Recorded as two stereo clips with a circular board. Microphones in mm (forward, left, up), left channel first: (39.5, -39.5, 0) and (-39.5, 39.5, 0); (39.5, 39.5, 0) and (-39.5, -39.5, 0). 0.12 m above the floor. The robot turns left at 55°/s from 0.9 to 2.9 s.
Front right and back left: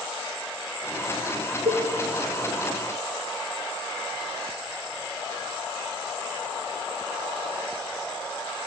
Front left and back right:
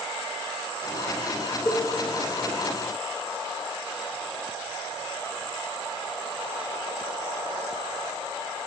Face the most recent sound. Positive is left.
turn(degrees=40)